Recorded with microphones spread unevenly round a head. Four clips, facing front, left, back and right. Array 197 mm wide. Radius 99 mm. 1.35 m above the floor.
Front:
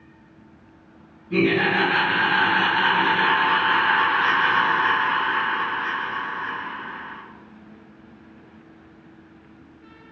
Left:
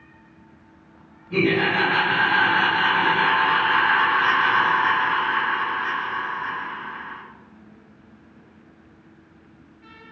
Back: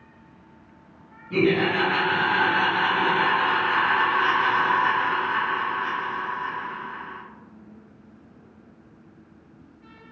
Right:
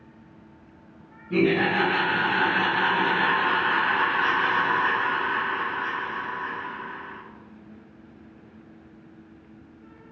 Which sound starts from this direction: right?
Laughter, at 1.3 s.